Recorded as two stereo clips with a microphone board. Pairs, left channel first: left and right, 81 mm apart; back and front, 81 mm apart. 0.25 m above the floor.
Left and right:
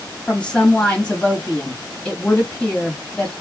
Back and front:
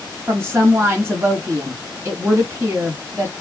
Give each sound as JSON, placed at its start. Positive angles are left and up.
{"t": 0.3, "sound": "a woman speaking", "azimuth_deg": 20, "distance_m": 1.4}